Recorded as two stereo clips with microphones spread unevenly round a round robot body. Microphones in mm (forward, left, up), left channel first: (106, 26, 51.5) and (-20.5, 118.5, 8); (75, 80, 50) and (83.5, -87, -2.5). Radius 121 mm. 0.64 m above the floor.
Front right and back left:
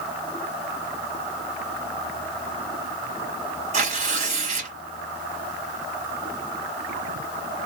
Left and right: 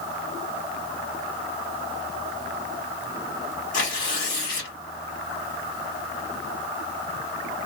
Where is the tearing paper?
150° left, 1.7 m.